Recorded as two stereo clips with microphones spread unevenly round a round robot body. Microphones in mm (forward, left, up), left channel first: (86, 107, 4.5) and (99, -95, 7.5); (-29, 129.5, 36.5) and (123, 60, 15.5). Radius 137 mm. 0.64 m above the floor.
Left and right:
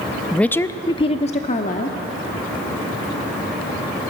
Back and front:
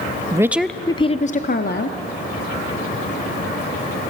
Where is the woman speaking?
10° left, 0.7 m; by 2.0 s 145° left, 1.2 m.